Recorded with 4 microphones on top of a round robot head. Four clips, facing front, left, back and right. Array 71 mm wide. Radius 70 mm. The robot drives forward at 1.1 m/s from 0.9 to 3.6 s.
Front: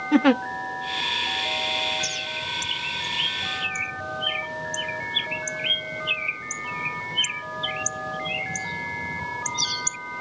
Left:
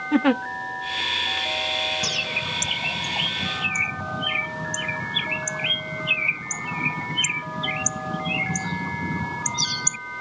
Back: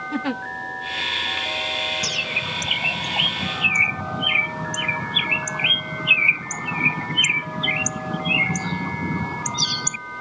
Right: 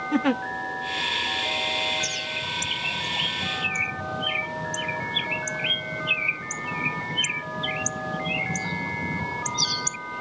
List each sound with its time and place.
0.1 s a giggle: 20° left
2.0 s a bird: 130° left; by 10.0 s 165° left